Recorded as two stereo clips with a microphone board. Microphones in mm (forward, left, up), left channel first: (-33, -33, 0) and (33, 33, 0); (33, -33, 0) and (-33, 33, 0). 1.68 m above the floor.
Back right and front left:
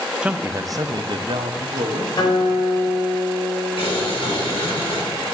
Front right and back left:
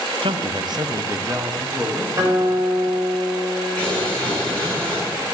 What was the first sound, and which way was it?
A man speaking, 125° left.